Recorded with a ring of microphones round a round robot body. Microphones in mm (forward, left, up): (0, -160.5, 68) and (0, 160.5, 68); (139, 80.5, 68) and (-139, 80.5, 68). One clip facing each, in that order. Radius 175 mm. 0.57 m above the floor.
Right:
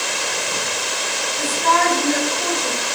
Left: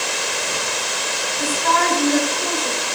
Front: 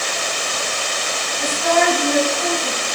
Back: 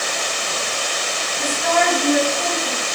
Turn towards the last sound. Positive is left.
turn(degrees=-125)